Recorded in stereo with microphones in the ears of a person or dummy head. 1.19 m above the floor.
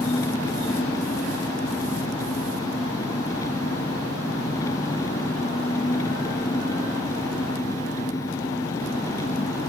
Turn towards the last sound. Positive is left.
turn(degrees=25)  # may be behind; listen again after turning